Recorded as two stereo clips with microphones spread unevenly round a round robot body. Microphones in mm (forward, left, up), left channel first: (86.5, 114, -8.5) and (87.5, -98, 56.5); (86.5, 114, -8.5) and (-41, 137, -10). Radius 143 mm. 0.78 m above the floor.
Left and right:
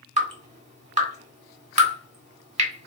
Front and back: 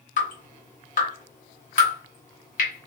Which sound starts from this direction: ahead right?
Dripping, at 0.2 s.